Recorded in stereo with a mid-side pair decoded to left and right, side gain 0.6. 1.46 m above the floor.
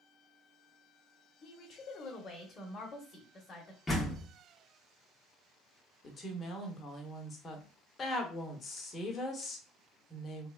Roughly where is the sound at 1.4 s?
Ahead left.